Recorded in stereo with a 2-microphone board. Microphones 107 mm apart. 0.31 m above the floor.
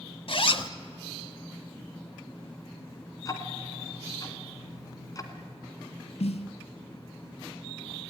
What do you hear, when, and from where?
0.3 s a zipper: 55° left (ahead or behind), 1.0 m
3.2 s ticking: 35° left (ahead or behind), 2 m
6.2 s a snare drum: 80° left, 0.9 m